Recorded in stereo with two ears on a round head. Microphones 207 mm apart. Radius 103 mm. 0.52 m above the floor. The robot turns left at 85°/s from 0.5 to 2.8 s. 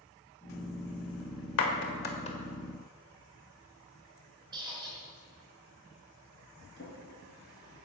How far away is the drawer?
About 4 m.